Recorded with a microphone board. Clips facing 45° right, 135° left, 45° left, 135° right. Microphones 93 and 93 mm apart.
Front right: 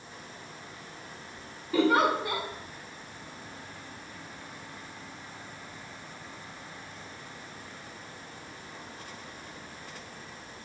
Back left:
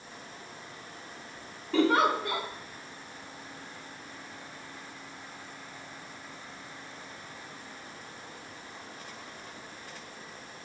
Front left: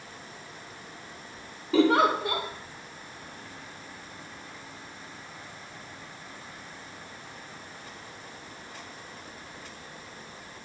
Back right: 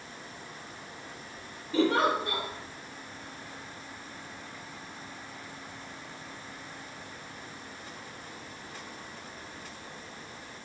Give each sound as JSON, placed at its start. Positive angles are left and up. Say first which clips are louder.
{"t": 1.7, "sound": "a giggle", "louder": "even, front left 4 dB", "azimuth_deg": 40, "distance_m": 0.6}